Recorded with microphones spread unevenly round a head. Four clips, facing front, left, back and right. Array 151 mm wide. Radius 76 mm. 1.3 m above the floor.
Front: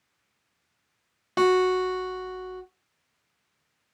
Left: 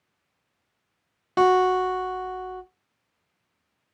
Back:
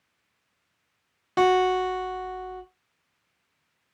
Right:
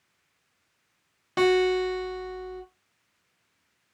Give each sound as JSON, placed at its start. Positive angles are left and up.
{"t": 1.4, "sound": "a guitar", "azimuth_deg": 75, "distance_m": 0.8}